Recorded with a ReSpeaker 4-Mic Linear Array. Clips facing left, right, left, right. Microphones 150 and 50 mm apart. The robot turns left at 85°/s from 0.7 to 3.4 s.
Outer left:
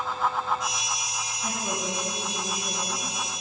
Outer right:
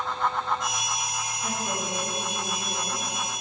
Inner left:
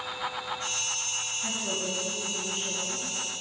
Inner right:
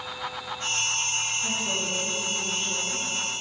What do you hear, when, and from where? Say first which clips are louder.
1.4 s a woman speaking: outer left 1 dB, inner right 3 dB; 175° left, 1.7 m; by 3.1 s 35° left, 1.7 m